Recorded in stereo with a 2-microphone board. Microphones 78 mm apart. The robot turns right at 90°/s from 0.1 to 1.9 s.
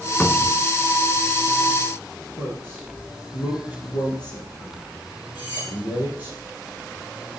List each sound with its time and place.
0.2 s a cupboard door: 20° left (ahead or behind), 0.8 m
2.4 s a man speaking: 70° left (ahead or behind), 3.5 m
5.3 s cutlery clinking: 85° left, 5 m